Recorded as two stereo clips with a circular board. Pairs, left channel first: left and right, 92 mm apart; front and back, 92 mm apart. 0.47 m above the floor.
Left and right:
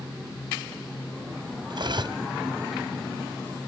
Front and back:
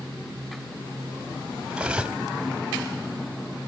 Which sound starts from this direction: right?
Cutlery clinking, at 1.7 s.